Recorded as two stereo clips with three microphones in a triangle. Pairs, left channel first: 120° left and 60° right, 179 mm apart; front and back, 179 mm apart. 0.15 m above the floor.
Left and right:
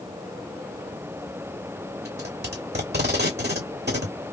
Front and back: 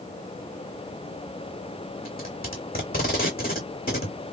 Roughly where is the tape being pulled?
Ahead right.